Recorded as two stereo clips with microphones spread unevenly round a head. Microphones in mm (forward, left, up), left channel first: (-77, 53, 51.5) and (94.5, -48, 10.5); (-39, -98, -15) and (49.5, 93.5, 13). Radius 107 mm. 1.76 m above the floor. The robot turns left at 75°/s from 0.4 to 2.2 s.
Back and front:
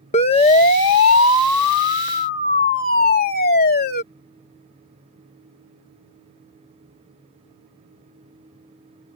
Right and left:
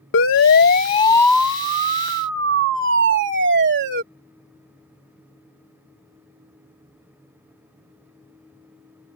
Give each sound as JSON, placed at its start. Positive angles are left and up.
{"t": 0.1, "sound": "a siren", "azimuth_deg": -150}